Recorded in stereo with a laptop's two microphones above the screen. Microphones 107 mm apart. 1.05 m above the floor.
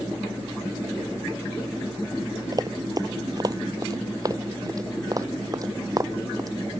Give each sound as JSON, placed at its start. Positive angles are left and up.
{"t": 2.5, "sound": "running footsteps", "side_deg": -40}